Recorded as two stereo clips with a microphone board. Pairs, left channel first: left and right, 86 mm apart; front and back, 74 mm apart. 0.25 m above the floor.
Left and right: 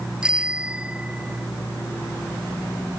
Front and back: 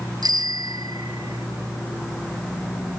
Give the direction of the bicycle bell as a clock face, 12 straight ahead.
6 o'clock.